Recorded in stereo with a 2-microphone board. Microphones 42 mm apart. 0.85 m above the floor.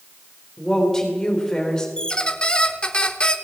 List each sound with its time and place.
0.6 s a woman speaking: 15° left (ahead or behind), 3 m
2.0 s a squeak: 25° left (ahead or behind), 0.8 m